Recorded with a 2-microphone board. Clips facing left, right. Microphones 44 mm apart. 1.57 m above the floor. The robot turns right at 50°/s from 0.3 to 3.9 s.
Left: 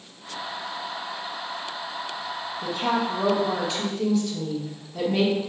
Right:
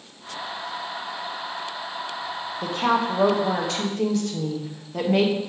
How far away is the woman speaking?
About 1.2 m.